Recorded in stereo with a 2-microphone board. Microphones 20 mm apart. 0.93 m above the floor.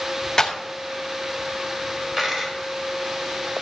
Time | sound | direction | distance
0.4 | a clap | 35° left (ahead or behind) | 1.5 m
2.2 | a dropped coin | 20° right (ahead or behind) | 2 m